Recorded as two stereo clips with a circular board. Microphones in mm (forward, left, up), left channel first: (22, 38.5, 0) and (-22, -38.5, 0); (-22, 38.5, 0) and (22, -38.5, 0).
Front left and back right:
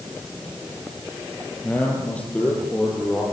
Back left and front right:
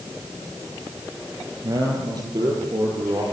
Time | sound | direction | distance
1.6 | a man speaking | 15° right | 9 m